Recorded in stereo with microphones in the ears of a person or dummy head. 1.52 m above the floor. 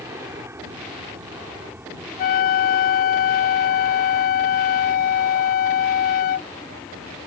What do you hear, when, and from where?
0.0 s an aircraft: 10° right (ahead or behind); by 7.3 s 10° left (ahead or behind)
2.2 s a flute: 50° left (ahead or behind)